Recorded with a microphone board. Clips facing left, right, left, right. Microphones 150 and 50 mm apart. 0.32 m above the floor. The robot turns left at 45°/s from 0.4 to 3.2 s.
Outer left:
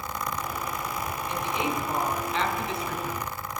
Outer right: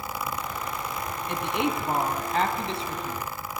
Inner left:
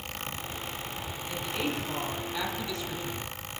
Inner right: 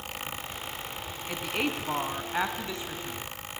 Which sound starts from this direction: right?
A woman speaking, at 1.3 s.